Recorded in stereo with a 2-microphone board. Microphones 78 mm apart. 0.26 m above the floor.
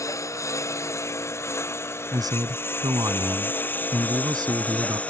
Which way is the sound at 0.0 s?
40° left (ahead or behind).